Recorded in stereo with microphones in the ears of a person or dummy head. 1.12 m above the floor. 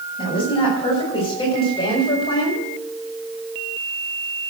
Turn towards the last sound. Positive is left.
turn(degrees=25)  # may be behind; listen again after turning